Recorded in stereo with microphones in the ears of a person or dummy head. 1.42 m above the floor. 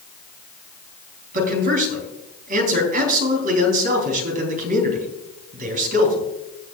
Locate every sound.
1.3 s a man speaking: 45° right (ahead or behind), 3 m